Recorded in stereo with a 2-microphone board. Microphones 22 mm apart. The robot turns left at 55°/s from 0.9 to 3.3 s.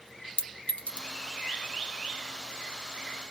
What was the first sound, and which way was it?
A clink, 70° left (ahead or behind).